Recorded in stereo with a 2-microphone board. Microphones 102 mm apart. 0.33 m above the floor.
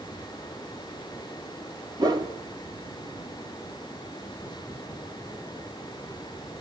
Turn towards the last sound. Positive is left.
turn(degrees=-40)  # may be behind; listen again after turning